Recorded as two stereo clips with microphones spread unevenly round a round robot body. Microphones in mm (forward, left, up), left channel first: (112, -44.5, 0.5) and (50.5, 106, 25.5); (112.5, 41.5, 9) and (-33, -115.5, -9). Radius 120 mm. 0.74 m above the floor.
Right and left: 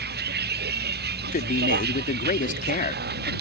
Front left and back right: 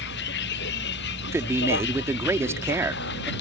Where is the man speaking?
60° right.